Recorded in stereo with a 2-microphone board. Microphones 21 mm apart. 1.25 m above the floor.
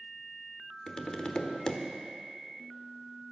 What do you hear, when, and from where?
0.9 s tapping: 45° left (ahead or behind), 1.1 m